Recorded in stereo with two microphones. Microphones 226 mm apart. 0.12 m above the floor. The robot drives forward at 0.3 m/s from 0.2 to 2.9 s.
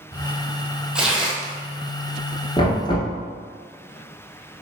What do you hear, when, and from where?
0.9 s tearing paper: 5° right (ahead or behind), 0.7 m
2.6 s knocking: 20° left (ahead or behind), 1.1 m